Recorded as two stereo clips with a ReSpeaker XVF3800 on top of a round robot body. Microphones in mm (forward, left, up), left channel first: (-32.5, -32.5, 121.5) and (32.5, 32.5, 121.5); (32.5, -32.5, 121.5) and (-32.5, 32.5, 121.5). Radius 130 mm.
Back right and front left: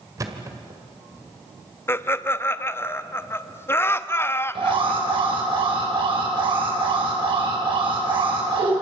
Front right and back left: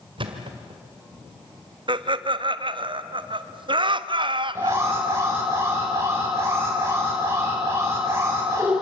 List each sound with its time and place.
0.2 s a thud: 100° left, 1.8 m
1.9 s laughter: 160° left, 1.2 m
4.5 s an alarm: 75° left, 5.5 m